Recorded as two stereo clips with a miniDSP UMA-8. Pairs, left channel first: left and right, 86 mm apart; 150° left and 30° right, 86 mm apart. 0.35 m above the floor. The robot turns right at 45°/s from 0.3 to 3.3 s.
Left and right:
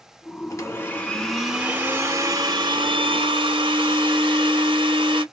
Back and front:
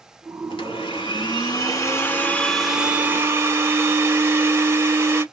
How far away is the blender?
About 1.1 m.